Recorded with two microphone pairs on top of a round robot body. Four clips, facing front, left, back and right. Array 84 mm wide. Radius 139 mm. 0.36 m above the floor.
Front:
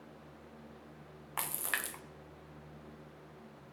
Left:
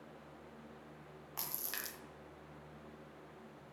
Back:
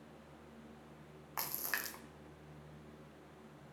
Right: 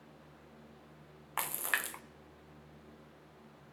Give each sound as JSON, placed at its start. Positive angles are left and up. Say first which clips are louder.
{"t": 1.4, "sound": "a splash", "louder": "right 12 dB, front 3 dB", "azimuth_deg": -85, "distance_m": 0.6}